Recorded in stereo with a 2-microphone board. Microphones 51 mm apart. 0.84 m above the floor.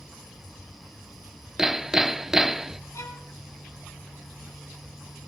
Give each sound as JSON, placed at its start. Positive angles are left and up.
{"t": 1.6, "sound": "hammering", "side_deg": -10, "distance_m": 0.6}
{"t": 2.9, "sound": "a violin", "side_deg": 85, "distance_m": 3.5}